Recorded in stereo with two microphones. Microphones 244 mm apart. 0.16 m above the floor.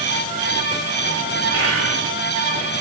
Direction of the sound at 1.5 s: 65° left (ahead or behind).